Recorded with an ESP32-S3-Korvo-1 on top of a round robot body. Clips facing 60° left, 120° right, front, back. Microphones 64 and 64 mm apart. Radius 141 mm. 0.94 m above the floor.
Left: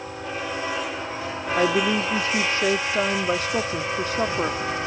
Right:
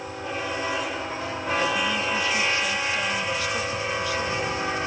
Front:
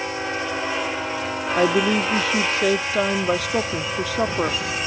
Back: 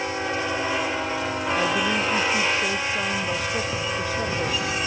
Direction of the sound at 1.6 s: 5° left.